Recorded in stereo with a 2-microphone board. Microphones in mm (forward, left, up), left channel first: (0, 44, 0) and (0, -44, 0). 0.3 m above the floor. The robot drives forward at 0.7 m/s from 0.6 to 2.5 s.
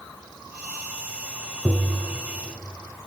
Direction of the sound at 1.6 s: 20° right (ahead or behind).